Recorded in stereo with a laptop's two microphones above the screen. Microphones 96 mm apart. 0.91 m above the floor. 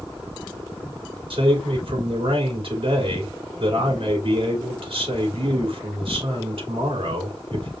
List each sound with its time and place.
1.3 s a man speaking: 65° right (ahead or behind), 2.5 m